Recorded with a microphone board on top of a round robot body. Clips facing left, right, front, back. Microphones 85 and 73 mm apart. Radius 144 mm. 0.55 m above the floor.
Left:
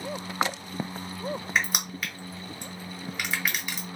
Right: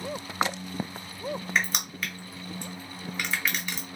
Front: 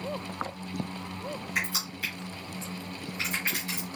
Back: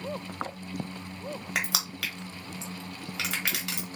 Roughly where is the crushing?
Behind.